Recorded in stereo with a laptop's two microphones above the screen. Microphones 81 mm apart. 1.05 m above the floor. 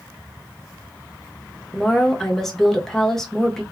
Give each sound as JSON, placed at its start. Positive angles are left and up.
{"t": 1.7, "sound": "a woman speaking", "side_deg": 5, "distance_m": 0.9}